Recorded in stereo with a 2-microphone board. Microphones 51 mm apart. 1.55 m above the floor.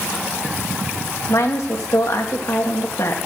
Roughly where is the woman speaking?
Left.